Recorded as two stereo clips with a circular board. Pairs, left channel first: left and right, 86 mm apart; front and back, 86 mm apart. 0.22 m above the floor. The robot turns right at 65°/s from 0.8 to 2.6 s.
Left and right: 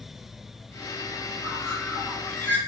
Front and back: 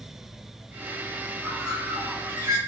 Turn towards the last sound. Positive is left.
turn(degrees=150)